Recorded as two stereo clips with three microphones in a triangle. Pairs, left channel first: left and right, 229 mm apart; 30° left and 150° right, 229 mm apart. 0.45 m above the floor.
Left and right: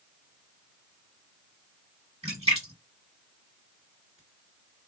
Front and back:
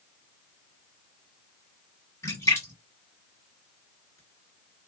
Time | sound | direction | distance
2.2 | a splash | 45° right | 1.7 m